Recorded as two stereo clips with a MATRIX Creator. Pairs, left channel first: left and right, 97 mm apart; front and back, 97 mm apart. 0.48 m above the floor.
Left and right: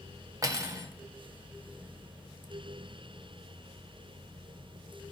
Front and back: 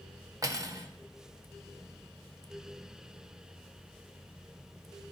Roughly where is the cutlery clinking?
Behind right.